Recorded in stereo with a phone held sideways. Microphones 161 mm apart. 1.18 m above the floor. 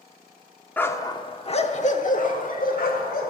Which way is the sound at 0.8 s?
10° left (ahead or behind).